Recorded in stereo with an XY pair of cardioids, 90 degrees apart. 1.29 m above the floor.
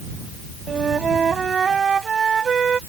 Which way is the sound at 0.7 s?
45° right.